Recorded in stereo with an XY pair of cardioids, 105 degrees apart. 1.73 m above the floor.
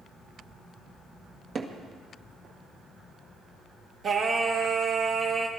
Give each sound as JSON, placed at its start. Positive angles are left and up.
{"t": 1.6, "sound": "hammering", "azimuth_deg": -50, "distance_m": 2.0}
{"t": 4.0, "sound": "singing", "azimuth_deg": -50, "distance_m": 2.0}